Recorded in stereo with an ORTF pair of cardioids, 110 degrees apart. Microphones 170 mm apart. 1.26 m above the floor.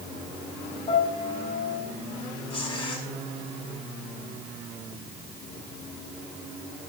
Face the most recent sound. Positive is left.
turn(degrees=35)